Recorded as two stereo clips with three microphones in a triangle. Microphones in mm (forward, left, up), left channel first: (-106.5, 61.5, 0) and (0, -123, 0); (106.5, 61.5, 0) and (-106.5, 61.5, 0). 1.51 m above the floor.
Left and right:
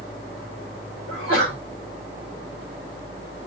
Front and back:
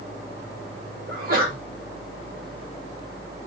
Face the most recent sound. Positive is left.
turn(degrees=130)